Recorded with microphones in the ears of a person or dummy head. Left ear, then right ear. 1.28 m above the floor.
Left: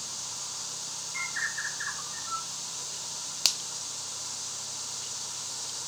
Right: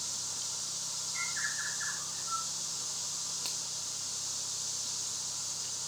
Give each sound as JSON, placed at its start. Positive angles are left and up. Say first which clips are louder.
{"t": 1.1, "sound": "a bird", "louder": "left 4 dB", "side_deg": 45, "distance_m": 2.5}
{"t": 3.5, "sound": "a finger snap", "louder": "left 15 dB", "side_deg": 65, "distance_m": 0.6}